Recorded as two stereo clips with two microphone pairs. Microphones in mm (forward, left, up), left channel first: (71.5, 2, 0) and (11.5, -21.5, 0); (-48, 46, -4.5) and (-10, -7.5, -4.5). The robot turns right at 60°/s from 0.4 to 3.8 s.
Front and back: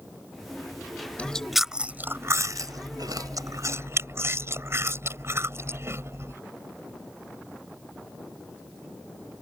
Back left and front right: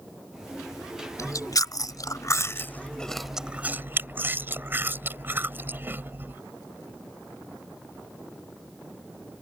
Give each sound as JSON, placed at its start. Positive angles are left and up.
{"t": 1.2, "sound": "chewing", "azimuth_deg": 95}